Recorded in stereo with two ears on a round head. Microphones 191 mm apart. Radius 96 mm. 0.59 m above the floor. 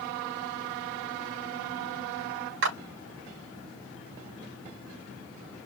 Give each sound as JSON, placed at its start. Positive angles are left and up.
{"t": 2.6, "sound": "a clap", "side_deg": -65, "distance_m": 4.0}